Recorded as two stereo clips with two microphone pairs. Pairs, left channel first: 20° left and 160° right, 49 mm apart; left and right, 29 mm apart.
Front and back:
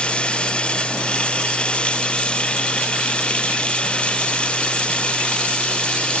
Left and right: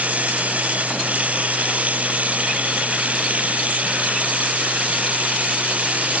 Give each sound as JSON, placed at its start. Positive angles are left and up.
{"t": 0.0, "sound": "running water", "azimuth_deg": -50}